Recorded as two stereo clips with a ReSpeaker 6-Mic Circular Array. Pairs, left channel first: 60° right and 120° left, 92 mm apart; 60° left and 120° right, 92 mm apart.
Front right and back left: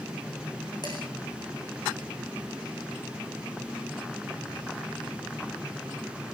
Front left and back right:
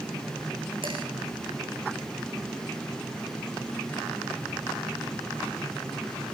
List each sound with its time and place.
0.8 s dishes clattering: 100° right, 6 m